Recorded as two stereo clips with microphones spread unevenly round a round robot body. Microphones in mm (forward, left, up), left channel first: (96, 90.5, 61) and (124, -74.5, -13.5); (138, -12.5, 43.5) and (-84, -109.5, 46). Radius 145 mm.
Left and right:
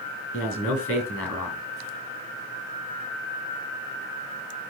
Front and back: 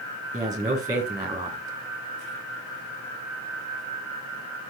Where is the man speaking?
125° left, 4.5 m.